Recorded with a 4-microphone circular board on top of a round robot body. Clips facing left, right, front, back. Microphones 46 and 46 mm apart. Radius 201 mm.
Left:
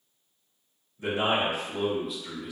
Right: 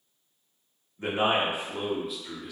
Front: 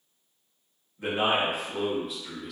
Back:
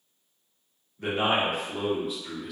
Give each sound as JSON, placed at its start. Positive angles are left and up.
{"t": 1.0, "sound": "a man speaking", "azimuth_deg": -80, "distance_m": 1.6}